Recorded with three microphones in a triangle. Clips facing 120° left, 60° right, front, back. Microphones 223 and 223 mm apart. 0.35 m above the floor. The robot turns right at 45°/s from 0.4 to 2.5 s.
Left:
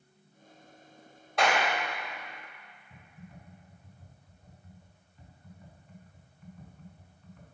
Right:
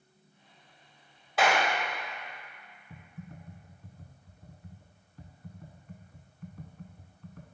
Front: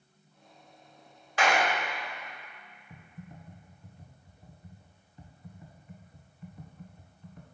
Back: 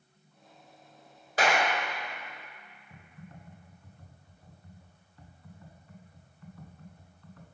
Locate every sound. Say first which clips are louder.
1.4 s a clap: right 1 dB, even; 145° right, 1.0 m; by 1.7 s 135° right, 1.0 m
2.9 s typing on a keyboard: right 5 dB, front 2 dB; 70° right, 0.7 m